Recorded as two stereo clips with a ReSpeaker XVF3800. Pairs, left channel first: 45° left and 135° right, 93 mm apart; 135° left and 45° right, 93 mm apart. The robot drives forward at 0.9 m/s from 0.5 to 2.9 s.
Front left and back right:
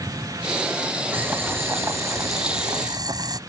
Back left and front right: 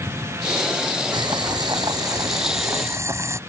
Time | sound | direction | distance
1.1 | boiling | 70° right | ?